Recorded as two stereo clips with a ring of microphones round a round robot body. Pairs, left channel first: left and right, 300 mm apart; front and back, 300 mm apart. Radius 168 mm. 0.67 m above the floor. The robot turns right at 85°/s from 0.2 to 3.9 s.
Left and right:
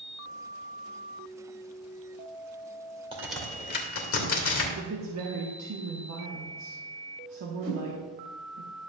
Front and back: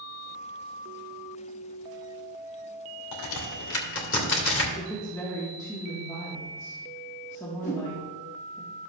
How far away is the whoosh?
About 2 m.